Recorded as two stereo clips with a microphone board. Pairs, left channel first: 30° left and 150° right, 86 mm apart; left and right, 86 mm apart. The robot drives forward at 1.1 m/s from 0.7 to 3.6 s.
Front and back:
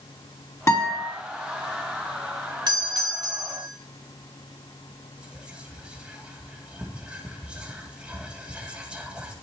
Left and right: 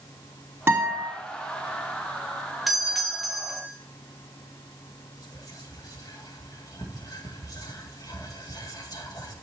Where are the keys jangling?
No keys jangling in this recording.